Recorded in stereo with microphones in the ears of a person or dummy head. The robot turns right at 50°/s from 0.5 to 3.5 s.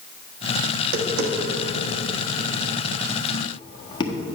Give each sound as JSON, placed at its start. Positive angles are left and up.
{"t": 0.7, "sound": "tapping", "side_deg": -70, "distance_m": 1.3}